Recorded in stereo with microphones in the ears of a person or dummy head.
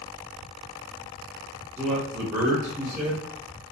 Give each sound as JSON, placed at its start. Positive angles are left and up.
{"t": 1.8, "sound": "a man speaking", "side_deg": -15, "distance_m": 1.0}